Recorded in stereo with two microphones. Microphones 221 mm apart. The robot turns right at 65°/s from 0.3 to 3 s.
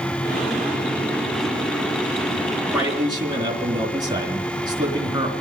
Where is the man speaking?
Centre (ahead or behind), 3.5 m; by 5.3 s 20° right (ahead or behind), 3.5 m.